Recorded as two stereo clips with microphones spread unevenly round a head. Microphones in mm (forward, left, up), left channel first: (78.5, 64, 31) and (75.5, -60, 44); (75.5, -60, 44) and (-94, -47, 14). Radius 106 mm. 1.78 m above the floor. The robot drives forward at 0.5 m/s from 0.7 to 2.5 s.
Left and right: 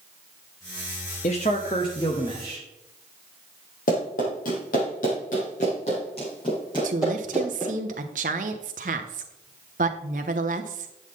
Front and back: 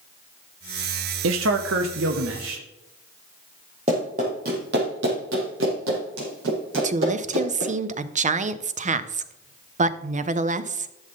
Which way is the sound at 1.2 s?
145° left.